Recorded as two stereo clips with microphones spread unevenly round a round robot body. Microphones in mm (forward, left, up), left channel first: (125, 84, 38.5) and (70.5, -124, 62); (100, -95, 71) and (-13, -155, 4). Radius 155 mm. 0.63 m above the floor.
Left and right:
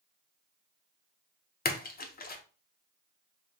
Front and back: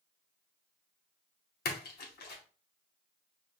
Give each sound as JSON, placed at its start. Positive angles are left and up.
{"t": 1.6, "sound": "a splash", "azimuth_deg": 25, "distance_m": 0.8}